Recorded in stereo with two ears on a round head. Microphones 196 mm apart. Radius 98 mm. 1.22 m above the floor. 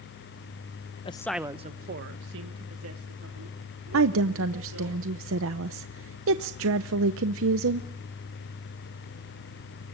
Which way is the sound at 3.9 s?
65° right (ahead or behind).